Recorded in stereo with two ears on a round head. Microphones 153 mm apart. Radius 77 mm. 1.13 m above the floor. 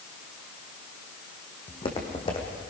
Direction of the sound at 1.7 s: 30° left (ahead or behind).